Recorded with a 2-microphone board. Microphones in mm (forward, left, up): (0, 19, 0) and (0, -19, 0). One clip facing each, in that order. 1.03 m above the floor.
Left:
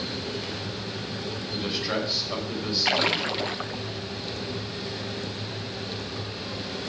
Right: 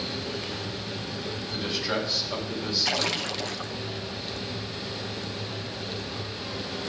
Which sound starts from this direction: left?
A splash, at 2.9 s.